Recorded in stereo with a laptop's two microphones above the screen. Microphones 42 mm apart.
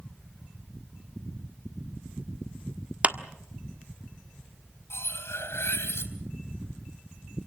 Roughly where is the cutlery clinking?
Left.